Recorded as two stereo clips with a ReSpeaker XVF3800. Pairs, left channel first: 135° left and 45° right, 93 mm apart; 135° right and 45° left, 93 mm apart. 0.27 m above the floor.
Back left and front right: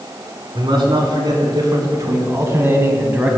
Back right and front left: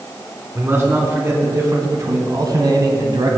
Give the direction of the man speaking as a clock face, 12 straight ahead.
1 o'clock.